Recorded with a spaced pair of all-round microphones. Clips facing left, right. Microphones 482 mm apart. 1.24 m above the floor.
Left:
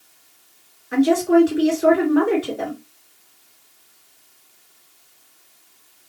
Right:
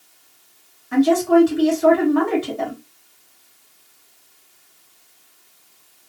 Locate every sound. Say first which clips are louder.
0.9 s a woman speaking: even; 20° right (ahead or behind), 1.4 m